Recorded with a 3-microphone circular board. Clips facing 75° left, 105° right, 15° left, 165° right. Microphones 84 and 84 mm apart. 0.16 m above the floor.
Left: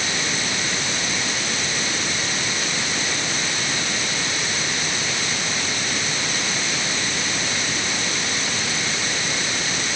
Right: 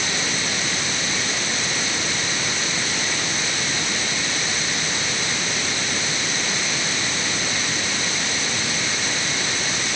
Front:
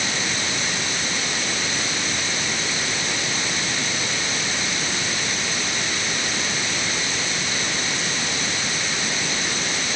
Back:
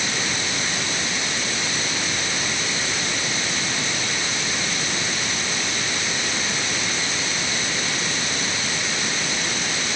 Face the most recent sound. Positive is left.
No sound to turn to.